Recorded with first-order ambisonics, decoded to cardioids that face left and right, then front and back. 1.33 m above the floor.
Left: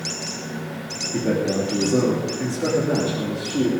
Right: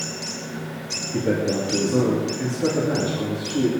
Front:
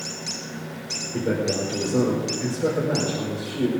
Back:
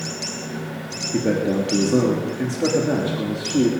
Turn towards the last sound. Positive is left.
turn(degrees=170)